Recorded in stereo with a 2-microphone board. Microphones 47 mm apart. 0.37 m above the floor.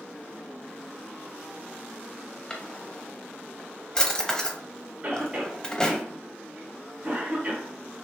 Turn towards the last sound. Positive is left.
turn(degrees=-25)  # may be behind; listen again after turning